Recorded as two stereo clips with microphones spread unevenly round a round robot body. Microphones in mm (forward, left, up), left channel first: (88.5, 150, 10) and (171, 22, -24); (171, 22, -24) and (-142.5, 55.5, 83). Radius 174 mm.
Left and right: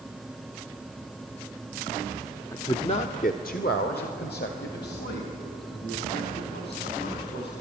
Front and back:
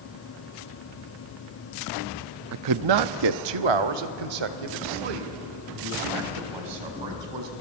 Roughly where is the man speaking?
Behind right.